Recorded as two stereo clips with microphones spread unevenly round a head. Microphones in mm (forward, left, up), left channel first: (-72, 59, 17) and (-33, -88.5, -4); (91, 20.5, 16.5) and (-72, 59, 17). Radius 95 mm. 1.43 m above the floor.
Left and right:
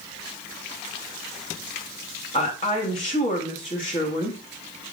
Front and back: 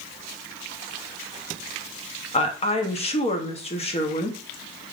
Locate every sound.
2.3 s a woman speaking: 40° left, 1.0 m